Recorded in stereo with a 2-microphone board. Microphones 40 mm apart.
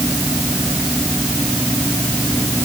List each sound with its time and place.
Only background noise.